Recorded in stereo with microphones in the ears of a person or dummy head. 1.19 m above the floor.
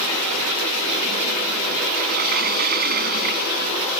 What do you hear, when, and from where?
2.0 s a sliding door: 50° right (ahead or behind)